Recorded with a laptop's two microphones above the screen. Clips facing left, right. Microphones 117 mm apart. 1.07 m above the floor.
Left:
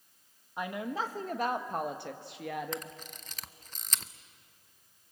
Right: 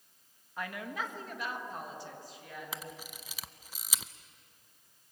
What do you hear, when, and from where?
0.6 s a woman speaking: 20° left (ahead or behind), 1.3 m; by 2.9 s 80° left, 1.6 m
2.7 s a camera shutter: 5° right (ahead or behind), 0.5 m